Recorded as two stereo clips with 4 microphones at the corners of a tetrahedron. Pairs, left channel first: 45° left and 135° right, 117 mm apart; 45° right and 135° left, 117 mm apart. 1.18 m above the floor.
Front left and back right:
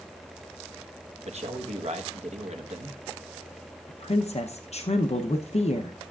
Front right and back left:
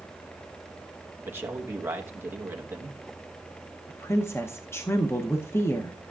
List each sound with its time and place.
1.2 s a man speaking: 155° right, 1.0 m
3.9 s a woman speaking: 25° left, 0.6 m